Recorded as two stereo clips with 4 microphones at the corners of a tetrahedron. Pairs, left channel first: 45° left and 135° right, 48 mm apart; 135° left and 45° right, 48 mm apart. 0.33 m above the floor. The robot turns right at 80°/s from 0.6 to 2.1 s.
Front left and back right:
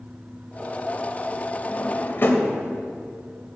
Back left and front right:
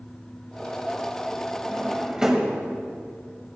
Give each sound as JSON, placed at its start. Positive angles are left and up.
{"t": 1.7, "sound": "a drawer", "azimuth_deg": 0, "distance_m": 1.0}